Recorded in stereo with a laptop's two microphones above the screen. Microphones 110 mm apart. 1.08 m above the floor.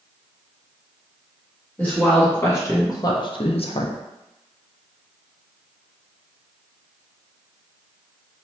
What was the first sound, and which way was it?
A woman speaking, 15° left (ahead or behind).